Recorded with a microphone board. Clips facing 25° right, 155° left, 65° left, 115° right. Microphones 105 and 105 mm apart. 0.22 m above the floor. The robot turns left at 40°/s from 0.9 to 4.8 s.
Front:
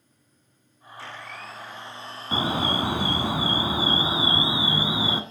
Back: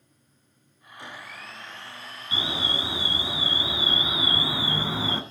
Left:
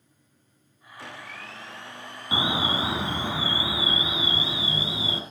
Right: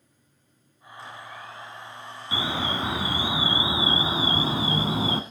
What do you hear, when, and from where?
1.0 s a blender: 85° left, 1.5 m; by 3.3 s 10° right, 1.5 m
2.3 s an alarm: 5° left, 1.7 m; by 5.2 s 95° right, 1.7 m